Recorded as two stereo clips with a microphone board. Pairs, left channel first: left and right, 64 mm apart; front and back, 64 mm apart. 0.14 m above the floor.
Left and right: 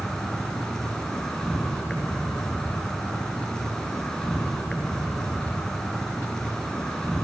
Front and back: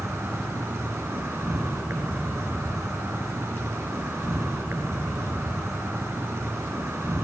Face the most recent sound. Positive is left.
turn(degrees=165)